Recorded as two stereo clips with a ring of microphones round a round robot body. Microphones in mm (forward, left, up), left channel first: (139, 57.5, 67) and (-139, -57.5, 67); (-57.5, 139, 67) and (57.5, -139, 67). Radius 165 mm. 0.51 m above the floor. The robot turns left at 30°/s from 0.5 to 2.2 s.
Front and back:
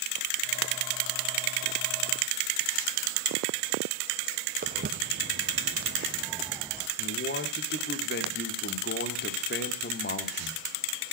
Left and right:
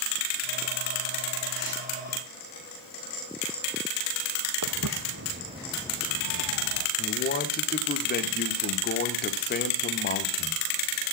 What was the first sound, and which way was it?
Footsteps, 95° right.